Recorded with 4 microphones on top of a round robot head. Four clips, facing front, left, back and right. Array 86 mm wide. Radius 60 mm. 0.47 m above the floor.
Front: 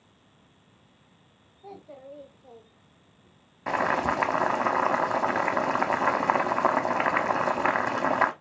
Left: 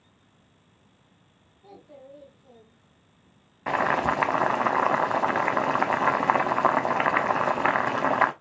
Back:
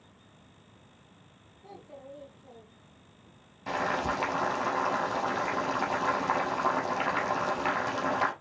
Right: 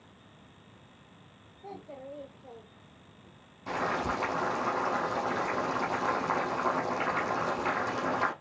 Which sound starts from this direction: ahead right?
A child speaking, at 1.6 s.